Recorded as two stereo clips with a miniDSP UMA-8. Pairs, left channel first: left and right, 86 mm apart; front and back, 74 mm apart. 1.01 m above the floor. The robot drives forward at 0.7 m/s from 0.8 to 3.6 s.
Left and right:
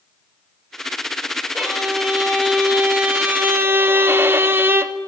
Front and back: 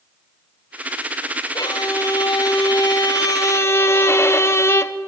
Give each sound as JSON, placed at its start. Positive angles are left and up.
{"t": 1.5, "sound": "a violin", "azimuth_deg": -5, "distance_m": 1.8}